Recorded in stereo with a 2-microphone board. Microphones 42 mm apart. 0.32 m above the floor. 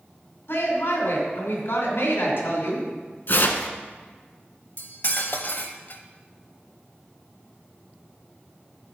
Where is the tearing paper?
55° left (ahead or behind), 0.8 m.